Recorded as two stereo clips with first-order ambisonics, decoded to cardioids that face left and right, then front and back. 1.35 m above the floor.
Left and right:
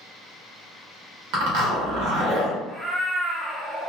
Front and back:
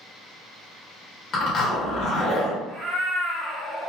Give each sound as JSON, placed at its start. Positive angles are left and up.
{"t": 1.3, "sound": "a zipper", "azimuth_deg": -70, "distance_m": 1.0}
{"t": 2.7, "sound": "a cat meowing", "azimuth_deg": 165, "distance_m": 0.6}